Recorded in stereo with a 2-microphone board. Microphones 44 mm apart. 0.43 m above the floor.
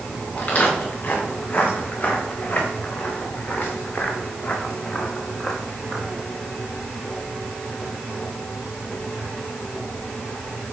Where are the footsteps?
30° left (ahead or behind), 4.5 m; by 6.1 s 10° right (ahead or behind), 1.3 m.